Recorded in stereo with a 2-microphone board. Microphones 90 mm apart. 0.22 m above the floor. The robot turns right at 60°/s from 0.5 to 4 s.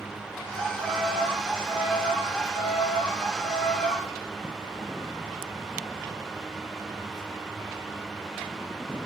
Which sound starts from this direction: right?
A violin, at 0.6 s.